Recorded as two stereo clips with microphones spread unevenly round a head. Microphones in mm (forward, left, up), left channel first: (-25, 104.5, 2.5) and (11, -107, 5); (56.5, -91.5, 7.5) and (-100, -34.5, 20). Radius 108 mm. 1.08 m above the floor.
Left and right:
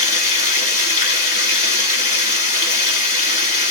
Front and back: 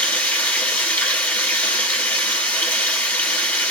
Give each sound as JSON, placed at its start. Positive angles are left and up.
{"t": 0.0, "sound": "running water", "azimuth_deg": 60, "distance_m": 1.2}